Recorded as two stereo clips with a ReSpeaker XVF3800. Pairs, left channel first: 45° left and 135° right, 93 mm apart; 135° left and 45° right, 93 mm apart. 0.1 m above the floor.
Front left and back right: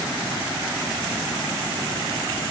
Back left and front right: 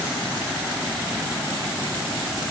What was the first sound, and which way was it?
Only background noise.